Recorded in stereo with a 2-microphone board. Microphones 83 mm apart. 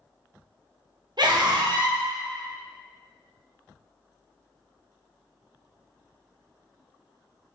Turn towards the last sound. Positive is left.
turn(degrees=-60)  # may be behind; listen again after turning